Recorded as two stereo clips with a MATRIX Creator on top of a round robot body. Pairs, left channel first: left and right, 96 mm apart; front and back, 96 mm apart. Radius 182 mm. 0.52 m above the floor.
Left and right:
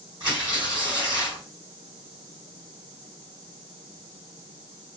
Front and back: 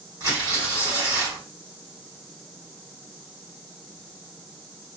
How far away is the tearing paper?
About 1.7 m.